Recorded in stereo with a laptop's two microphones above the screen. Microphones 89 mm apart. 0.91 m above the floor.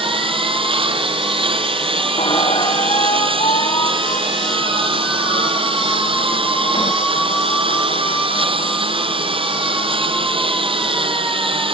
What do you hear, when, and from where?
0.0 s a lawn mower: 80° right
2.2 s a squeak: 65° left (ahead or behind)